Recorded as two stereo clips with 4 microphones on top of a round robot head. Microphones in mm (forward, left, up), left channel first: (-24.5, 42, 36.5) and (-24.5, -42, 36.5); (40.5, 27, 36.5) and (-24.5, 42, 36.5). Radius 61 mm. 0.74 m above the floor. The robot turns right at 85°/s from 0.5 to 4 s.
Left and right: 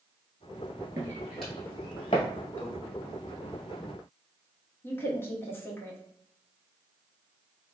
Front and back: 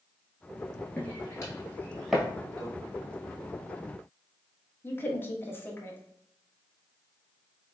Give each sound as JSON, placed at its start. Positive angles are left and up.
{"t": 1.0, "sound": "footsteps", "azimuth_deg": -75, "distance_m": 0.7}
{"t": 2.6, "sound": "a microwave", "azimuth_deg": 160, "distance_m": 1.1}
{"t": 4.8, "sound": "a woman speaking", "azimuth_deg": 35, "distance_m": 0.8}